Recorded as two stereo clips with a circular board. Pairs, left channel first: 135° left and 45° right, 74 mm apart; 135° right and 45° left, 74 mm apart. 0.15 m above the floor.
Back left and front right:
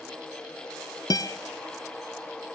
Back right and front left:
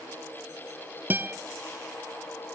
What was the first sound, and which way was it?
A guitar, 105° left.